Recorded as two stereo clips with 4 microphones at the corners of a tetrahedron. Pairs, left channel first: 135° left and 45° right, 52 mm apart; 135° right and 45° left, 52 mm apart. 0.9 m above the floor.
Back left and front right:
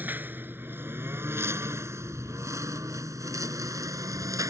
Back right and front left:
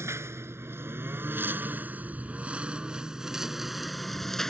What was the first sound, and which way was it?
A lawn mower, 10° left.